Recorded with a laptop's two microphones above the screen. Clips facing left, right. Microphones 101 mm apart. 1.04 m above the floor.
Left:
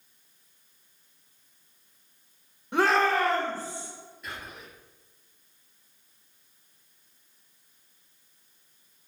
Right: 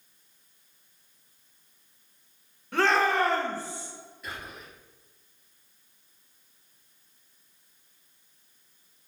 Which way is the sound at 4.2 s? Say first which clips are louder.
Right 1 dB; centre (ahead or behind).